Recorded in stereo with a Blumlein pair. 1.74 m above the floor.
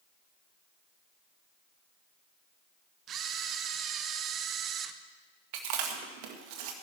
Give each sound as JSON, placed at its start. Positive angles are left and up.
{"t": 3.1, "sound": "a camera shutter", "azimuth_deg": -30, "distance_m": 0.8}
{"t": 5.5, "sound": "chewing", "azimuth_deg": -45, "distance_m": 1.8}